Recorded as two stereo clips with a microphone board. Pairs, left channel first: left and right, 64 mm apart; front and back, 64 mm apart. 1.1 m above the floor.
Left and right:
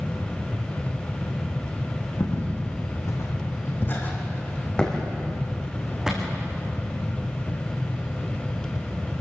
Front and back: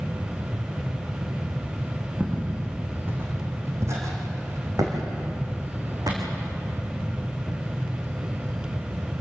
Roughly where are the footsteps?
Left.